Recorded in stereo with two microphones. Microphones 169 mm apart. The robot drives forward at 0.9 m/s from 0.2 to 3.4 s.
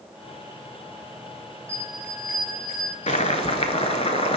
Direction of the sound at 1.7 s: 60° left (ahead or behind).